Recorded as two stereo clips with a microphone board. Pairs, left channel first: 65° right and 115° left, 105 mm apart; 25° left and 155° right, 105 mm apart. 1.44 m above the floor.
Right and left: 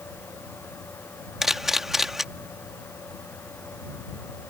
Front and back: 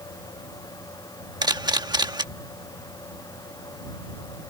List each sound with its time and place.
1.4 s a camera shutter: 160° right